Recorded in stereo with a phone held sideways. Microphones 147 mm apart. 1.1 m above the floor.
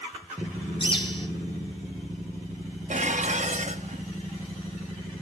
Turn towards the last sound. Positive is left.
turn(degrees=-55)  # may be behind; listen again after turning